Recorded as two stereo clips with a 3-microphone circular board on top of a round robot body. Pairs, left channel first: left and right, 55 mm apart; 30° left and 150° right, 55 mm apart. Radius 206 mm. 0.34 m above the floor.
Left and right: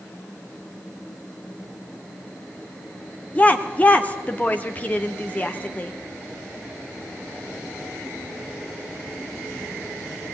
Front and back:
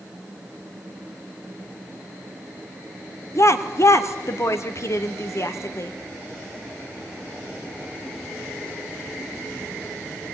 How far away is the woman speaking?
About 1.9 m.